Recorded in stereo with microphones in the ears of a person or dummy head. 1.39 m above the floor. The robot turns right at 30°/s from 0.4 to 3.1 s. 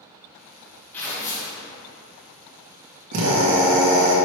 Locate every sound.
0.9 s tearing paper: 10° left (ahead or behind), 1.7 m; by 1.6 s 25° left (ahead or behind), 1.7 m
3.1 s a drill: 80° right, 1.8 m